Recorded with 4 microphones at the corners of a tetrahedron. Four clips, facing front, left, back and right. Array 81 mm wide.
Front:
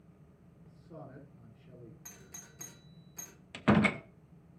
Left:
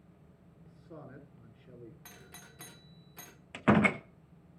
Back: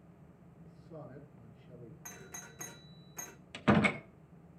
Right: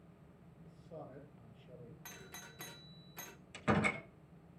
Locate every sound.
0.6 s a man speaking: 90° left, 5 m
2.0 s a doorbell: 170° right, 0.6 m
3.5 s a door slam: 90° left, 0.8 m